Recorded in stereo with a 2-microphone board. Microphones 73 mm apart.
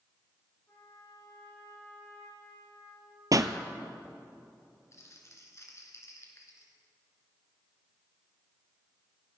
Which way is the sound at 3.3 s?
55° right (ahead or behind).